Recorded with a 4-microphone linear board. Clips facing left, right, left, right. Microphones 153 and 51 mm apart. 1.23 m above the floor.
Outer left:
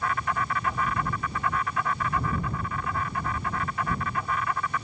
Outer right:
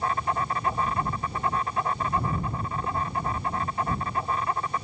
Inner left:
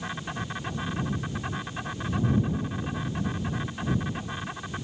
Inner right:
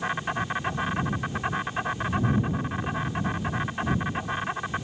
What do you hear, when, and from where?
0.0 s an insect: 30° right (ahead or behind)